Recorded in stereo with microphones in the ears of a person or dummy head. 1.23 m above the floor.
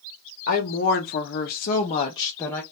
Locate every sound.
0.5 s a woman speaking: 40° left (ahead or behind), 0.9 m; by 2.6 s 10° left (ahead or behind), 0.8 m